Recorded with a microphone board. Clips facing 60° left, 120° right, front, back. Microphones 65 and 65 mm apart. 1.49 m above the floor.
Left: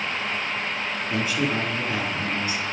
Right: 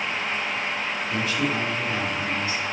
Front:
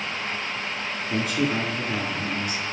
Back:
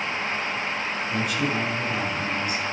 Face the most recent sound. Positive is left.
turn(degrees=-5)